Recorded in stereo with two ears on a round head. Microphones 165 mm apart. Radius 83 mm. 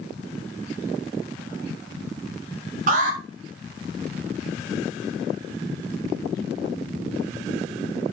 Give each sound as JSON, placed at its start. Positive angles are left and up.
{"t": 2.9, "sound": "an alarm", "side_deg": -45, "distance_m": 4.0}